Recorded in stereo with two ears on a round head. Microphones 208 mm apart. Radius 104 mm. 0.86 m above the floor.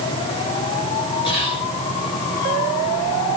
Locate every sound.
1.2 s whispering: 20° left (ahead or behind), 7.5 m